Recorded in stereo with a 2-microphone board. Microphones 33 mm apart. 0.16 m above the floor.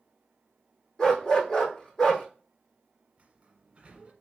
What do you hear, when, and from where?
1.0 s a dog barking: 20° left (ahead or behind), 3 m
3.2 s a sliding door: 35° right (ahead or behind), 1.1 m